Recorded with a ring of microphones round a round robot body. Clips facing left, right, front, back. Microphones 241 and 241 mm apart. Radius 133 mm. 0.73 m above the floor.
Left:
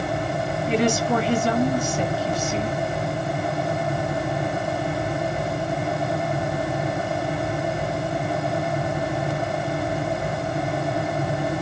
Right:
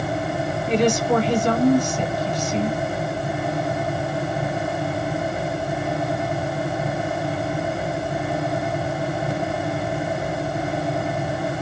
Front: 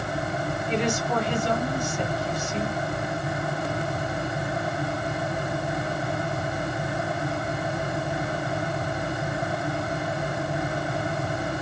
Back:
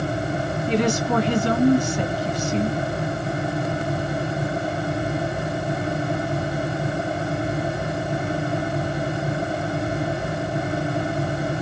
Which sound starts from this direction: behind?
A woman speaking, at 0.7 s.